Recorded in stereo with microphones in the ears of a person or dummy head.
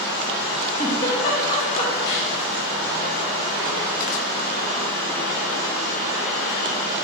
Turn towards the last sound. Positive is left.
turn(degrees=30)  # may be behind; listen again after turning